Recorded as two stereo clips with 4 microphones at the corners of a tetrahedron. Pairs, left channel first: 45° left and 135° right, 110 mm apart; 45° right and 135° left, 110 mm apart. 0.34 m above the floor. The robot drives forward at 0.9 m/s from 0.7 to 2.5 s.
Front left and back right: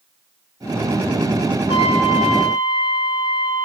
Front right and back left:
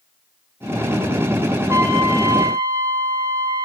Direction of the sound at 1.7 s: 75° left.